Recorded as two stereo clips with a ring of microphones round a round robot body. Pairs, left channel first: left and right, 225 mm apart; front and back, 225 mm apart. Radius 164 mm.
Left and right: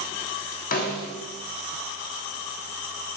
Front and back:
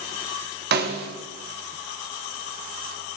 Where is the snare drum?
140° left, 0.8 m.